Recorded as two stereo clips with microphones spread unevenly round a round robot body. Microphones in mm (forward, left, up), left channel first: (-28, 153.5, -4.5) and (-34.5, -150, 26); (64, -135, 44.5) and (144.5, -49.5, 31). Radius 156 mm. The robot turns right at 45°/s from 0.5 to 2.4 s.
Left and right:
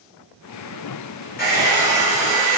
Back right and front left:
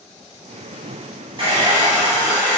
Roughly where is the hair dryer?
Ahead left.